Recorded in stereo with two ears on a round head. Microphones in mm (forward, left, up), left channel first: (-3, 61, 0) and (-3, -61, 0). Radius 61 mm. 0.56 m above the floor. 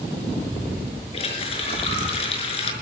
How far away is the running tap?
About 5 m.